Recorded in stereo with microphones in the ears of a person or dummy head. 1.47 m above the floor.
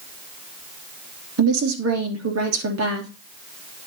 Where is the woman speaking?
80° right, 3 m.